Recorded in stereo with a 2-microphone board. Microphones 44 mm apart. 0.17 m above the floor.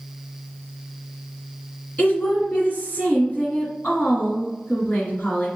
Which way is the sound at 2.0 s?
30° left (ahead or behind).